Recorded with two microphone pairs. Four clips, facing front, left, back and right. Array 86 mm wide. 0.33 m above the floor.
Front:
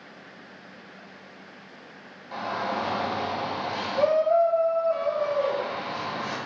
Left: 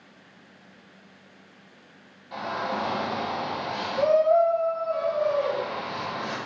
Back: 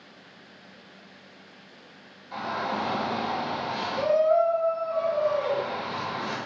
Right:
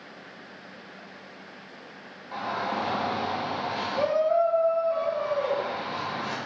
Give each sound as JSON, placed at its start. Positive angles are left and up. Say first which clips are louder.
{"t": 2.3, "sound": "a shout", "louder": "even, front 1 dB", "azimuth_deg": -30, "distance_m": 1.0}